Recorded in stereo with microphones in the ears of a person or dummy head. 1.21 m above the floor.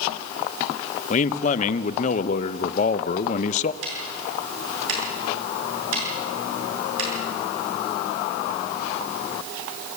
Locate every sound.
1.1 s a man speaking: 40° left (ahead or behind), 0.8 m
3.8 s ticking: 80° right, 6.5 m